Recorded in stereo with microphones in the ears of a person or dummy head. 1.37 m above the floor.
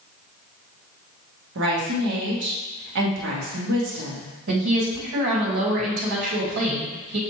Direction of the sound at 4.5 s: 65° right (ahead or behind).